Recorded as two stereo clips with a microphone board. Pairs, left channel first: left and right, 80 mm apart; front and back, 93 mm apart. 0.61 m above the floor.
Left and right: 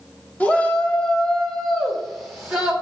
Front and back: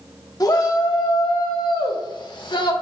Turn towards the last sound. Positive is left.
turn(degrees=-5)